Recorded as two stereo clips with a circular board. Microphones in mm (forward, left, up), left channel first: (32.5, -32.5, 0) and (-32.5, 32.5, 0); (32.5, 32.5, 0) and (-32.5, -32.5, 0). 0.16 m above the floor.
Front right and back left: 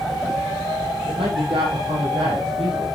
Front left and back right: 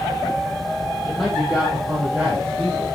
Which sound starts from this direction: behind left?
A man speaking, at 1.1 s.